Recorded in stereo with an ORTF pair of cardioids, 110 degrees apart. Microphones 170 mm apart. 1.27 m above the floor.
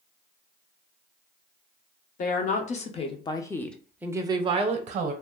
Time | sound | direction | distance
2.2 | a woman speaking | 55° left | 1.0 m